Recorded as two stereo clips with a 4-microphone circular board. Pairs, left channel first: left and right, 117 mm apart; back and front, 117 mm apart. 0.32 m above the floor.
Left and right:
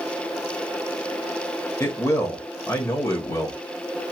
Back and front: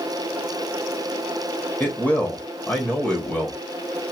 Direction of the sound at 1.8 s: 125° left.